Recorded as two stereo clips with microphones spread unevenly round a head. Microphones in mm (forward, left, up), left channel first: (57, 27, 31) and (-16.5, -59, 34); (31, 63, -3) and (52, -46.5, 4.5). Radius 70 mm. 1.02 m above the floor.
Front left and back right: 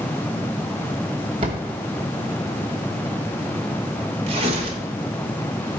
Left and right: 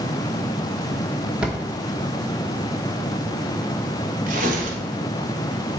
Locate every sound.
1.4 s a drawer: 155° right, 0.8 m
4.3 s tearing paper: 95° right, 1.3 m